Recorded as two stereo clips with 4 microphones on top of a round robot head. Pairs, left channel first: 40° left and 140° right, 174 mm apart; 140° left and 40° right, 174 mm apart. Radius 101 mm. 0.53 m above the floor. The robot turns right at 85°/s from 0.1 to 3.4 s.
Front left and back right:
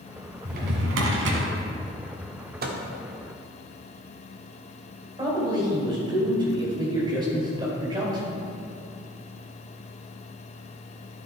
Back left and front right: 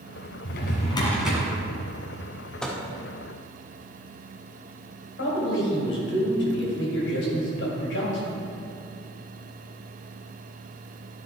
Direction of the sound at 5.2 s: 150° left.